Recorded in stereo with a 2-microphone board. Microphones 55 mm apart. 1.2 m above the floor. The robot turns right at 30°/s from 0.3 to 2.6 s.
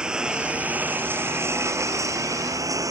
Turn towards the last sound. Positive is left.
turn(degrees=-95)